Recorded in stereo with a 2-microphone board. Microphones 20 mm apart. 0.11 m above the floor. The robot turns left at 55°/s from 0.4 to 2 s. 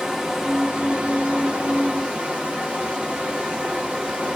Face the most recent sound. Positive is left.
turn(degrees=-105)